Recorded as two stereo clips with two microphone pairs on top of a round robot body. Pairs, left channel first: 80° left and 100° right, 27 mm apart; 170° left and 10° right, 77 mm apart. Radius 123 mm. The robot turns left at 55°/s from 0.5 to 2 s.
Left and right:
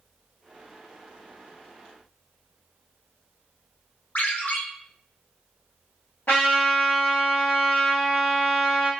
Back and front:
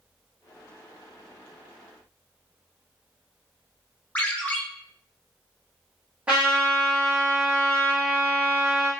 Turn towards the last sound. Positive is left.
turn(degrees=60)